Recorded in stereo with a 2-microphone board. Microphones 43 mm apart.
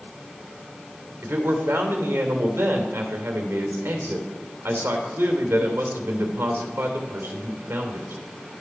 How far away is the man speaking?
About 3 m.